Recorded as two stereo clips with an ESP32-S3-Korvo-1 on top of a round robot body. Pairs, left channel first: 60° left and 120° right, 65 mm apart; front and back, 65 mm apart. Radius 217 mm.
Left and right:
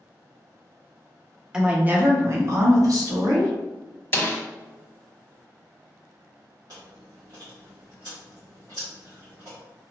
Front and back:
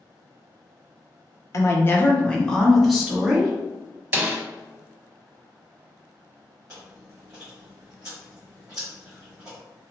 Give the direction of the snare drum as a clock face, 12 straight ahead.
8 o'clock.